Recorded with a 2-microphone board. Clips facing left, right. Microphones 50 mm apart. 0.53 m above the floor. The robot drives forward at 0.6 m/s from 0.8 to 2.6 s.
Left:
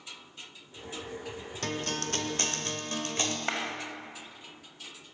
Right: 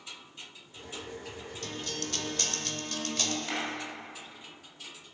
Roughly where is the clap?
Left.